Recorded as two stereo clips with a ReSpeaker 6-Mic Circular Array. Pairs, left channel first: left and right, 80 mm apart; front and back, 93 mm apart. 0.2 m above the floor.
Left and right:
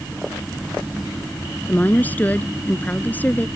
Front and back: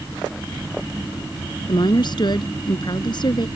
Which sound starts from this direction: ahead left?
A woman speaking, at 1.7 s.